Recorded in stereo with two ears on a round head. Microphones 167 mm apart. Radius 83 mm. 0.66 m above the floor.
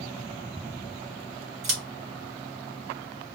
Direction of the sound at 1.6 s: 80° right.